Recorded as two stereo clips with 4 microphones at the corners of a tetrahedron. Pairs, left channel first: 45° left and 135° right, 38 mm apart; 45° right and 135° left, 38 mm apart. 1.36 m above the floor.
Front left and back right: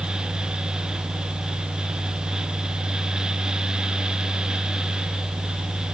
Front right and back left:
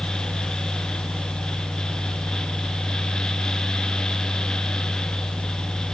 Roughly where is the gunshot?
I don't hear a gunshot.